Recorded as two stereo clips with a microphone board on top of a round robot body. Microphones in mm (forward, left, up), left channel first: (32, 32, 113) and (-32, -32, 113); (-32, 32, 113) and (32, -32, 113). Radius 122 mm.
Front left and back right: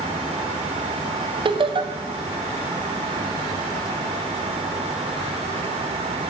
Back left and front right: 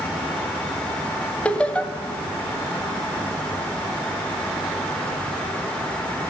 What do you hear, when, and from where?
1.4 s laughter: 150° right, 0.7 m